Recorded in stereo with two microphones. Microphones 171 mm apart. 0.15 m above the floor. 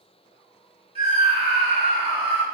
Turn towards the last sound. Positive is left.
turn(degrees=-35)  # may be behind; listen again after turning